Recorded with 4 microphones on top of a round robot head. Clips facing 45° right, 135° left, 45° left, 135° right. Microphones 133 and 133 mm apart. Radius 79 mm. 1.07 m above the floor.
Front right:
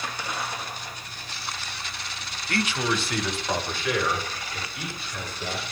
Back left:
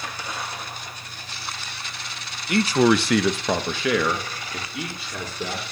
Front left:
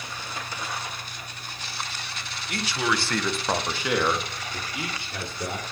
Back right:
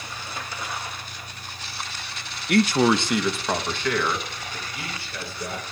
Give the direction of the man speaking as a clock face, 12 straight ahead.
5 o'clock.